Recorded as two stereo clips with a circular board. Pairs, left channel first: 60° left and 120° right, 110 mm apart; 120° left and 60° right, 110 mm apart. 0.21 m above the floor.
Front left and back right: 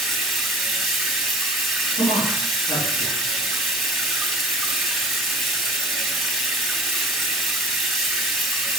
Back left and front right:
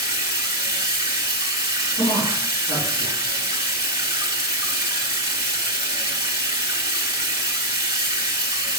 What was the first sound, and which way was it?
Running water, 30° right.